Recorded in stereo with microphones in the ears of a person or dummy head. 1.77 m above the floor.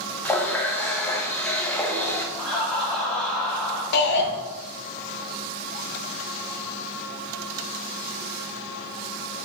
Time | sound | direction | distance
0.2 | a running tap | 10° left (ahead or behind) | 1.2 m
2.4 | laughter | 15° left (ahead or behind) | 2 m
3.9 | a shout | 60° left (ahead or behind) | 1.8 m